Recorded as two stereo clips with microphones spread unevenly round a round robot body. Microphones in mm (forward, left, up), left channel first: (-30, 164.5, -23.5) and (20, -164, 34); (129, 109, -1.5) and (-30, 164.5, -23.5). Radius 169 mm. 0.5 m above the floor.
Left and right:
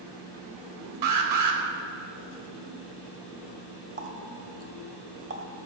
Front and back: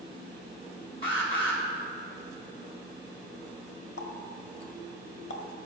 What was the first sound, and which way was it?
An alarm, 85° right.